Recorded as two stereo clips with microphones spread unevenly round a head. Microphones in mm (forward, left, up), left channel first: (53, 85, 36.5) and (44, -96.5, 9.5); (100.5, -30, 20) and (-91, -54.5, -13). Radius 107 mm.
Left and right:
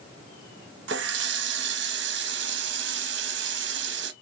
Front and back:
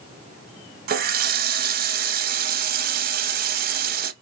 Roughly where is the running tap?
Behind right.